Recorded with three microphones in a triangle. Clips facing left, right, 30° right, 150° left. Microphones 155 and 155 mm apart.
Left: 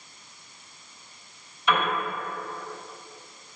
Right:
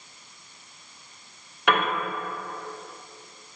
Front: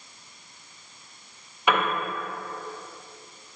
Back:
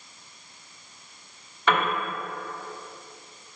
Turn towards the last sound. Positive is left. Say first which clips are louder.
# right 1 dB, even
turn(degrees=-110)